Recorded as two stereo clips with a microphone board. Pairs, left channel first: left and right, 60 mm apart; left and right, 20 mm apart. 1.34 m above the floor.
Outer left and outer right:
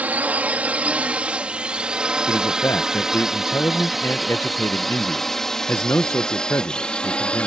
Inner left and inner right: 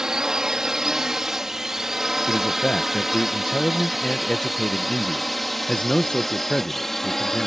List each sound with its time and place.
0.0 s a drone: 25° right (ahead or behind); by 7.5 s 15° left (ahead or behind)
2.3 s a man speaking: 45° left (ahead or behind)